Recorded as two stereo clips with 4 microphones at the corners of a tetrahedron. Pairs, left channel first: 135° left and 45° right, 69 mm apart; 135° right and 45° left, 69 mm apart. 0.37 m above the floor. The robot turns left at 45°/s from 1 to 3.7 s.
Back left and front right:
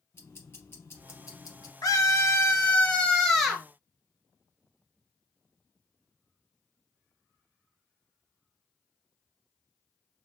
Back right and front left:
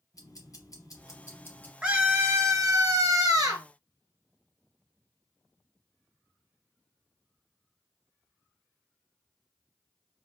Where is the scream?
125° left, 1.7 m; by 3.6 s 40° left, 1.7 m.